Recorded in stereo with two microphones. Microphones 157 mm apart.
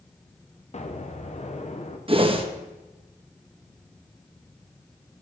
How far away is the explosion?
About 0.8 m.